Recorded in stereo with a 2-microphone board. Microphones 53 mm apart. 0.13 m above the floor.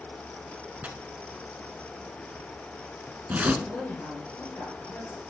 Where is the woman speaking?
45° left (ahead or behind), 2 m.